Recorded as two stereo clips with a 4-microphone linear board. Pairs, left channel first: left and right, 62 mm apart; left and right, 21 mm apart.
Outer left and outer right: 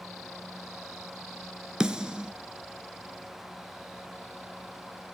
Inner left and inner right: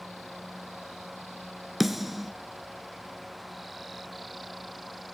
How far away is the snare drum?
About 0.6 m.